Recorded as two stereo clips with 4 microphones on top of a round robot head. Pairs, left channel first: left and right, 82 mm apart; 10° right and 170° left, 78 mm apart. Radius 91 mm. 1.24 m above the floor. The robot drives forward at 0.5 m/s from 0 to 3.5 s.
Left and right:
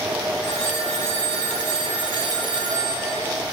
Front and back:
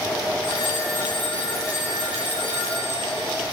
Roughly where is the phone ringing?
Ahead right.